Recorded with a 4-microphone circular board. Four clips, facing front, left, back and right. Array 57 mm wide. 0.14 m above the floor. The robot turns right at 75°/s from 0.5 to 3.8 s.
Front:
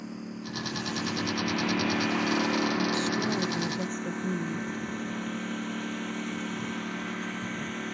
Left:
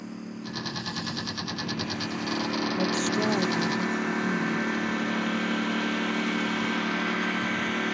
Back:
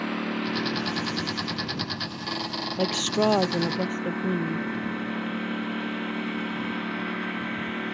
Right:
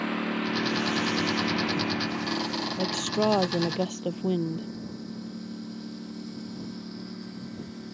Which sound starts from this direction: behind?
A woman speaking, at 2.8 s.